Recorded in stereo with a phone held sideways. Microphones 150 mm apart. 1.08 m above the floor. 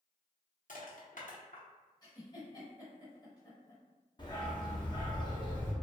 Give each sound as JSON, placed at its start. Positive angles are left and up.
{"t": 0.7, "sound": "crushing", "side_deg": 60, "distance_m": 0.8}
{"t": 2.0, "sound": "a giggle", "side_deg": 25, "distance_m": 0.9}
{"t": 4.2, "sound": "a dog barking", "side_deg": 30, "distance_m": 0.7}